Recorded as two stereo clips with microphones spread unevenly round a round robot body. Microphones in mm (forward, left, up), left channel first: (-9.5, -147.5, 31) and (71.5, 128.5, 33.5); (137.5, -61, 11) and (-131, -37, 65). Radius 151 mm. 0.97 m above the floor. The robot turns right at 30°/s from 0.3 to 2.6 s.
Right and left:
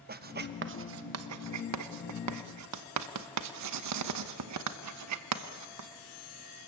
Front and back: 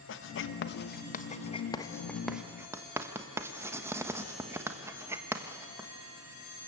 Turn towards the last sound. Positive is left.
turn(degrees=90)